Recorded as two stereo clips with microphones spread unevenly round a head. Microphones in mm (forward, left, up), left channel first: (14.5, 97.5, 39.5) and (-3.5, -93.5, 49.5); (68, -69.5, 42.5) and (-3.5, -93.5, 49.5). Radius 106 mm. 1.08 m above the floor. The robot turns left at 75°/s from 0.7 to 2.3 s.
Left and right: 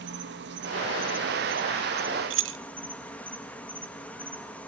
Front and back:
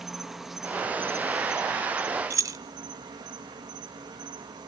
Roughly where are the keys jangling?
Behind right.